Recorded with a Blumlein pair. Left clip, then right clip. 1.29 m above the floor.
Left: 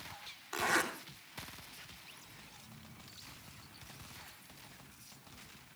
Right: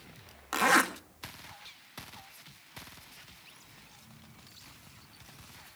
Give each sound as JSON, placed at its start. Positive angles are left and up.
{"t": 0.5, "sound": "a zipper", "azimuth_deg": -50, "distance_m": 2.0}